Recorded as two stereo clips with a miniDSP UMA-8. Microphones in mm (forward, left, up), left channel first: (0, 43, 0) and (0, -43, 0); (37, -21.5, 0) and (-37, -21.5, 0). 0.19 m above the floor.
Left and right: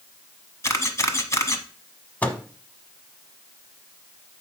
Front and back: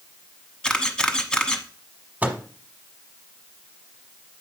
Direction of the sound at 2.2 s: 140° left.